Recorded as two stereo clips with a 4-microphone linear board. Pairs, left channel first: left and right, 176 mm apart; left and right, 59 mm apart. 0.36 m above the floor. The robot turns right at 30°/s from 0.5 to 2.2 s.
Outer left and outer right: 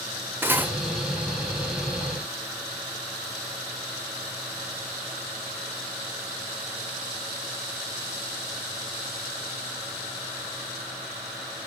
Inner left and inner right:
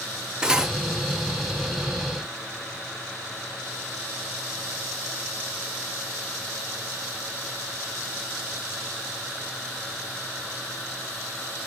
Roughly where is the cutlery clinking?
Centre.